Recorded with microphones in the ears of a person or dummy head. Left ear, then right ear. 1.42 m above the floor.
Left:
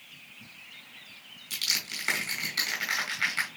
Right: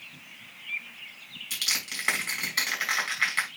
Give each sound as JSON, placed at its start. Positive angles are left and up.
{"t": 1.5, "sound": "crushing", "side_deg": -25, "distance_m": 5.0}